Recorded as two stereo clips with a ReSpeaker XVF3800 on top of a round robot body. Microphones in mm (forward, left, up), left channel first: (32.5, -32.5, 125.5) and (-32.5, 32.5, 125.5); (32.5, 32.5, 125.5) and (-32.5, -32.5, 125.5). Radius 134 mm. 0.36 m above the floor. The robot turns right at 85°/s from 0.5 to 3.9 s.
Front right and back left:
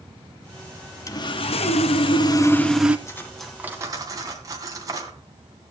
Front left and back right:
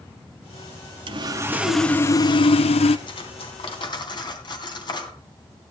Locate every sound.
1.1 s sawing: 105° right, 0.8 m; by 3.0 s 60° left, 0.8 m
3.1 s cutlery clinking: 10° left, 2.5 m; by 5.2 s 80° left, 2.5 m